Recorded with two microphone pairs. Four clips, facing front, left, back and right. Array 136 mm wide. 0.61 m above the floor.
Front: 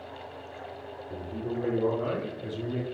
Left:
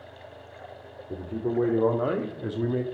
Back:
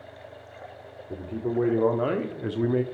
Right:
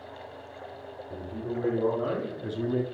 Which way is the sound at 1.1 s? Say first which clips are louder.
Left 6 dB, back 5 dB; 125° left.